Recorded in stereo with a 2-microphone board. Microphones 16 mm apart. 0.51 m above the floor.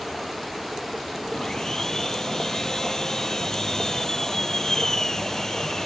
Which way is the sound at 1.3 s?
30° left (ahead or behind).